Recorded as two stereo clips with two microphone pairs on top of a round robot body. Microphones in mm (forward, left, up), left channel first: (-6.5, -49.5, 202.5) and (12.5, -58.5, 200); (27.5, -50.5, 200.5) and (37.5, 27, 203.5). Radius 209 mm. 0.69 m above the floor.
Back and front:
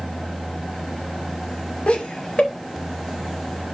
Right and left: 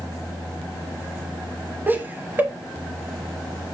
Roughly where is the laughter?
Behind left.